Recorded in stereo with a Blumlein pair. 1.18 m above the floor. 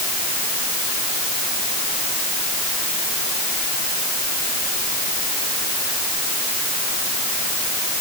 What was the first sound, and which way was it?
Only background noise.